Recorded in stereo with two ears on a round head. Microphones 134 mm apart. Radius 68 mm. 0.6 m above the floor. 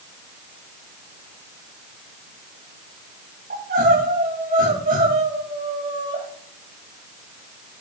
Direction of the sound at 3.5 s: 70° right (ahead or behind).